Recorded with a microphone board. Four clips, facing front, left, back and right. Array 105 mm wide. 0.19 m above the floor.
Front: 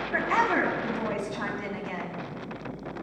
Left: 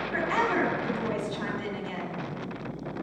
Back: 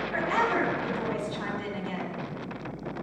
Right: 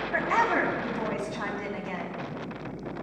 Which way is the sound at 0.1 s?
50° right.